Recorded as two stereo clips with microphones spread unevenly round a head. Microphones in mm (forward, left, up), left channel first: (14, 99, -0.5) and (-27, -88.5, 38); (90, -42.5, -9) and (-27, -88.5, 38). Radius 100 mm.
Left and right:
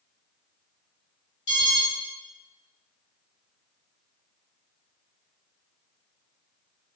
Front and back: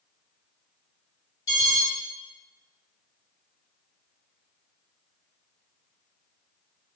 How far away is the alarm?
About 1.8 m.